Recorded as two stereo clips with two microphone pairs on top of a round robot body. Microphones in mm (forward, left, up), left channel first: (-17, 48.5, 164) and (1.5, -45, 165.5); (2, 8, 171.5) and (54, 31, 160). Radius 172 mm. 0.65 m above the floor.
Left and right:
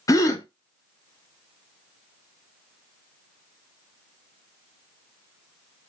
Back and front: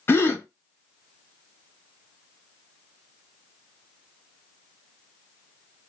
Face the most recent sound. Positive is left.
turn(degrees=150)